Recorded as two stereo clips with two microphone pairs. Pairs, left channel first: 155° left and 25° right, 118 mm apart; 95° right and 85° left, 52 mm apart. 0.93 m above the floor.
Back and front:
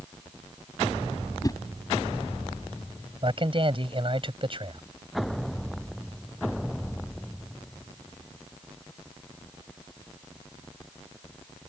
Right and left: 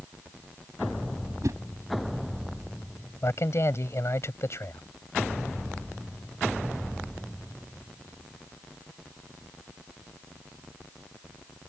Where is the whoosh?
95° left.